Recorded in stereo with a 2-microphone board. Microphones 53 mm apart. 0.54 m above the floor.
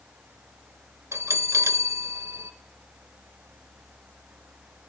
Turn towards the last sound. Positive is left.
turn(degrees=-70)  # may be behind; listen again after turning